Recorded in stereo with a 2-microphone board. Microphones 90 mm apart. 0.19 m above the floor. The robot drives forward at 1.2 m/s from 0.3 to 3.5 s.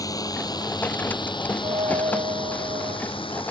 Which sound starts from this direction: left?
A drone, at 0.0 s.